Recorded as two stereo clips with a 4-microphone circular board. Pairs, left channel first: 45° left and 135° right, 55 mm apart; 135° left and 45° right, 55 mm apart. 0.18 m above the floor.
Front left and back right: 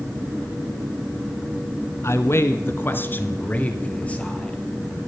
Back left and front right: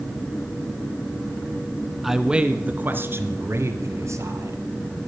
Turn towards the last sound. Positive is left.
turn(degrees=-25)